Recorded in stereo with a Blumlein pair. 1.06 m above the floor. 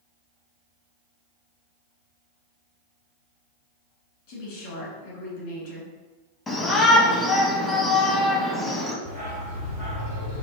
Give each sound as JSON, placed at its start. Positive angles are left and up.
{"t": 4.3, "sound": "a woman speaking", "azimuth_deg": 50, "distance_m": 2.0}
{"t": 6.5, "sound": "a shout", "azimuth_deg": 15, "distance_m": 0.7}
{"t": 9.1, "sound": "a dog barking", "azimuth_deg": 60, "distance_m": 1.9}